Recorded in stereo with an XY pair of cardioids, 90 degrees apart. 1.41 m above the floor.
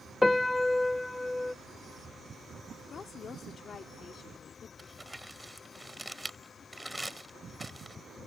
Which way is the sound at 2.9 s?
60° left.